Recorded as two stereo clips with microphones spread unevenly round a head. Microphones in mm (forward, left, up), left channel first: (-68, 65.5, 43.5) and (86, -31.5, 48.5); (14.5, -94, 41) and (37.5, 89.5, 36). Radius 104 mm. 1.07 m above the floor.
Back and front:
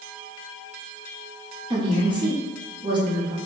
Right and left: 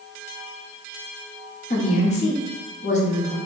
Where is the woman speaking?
80° right, 0.8 m.